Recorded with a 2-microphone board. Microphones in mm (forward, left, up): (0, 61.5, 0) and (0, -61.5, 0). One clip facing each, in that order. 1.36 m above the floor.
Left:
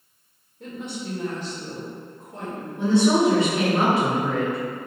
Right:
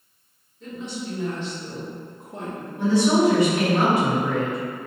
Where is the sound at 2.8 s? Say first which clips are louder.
Even; 25° left (ahead or behind), 1.1 m.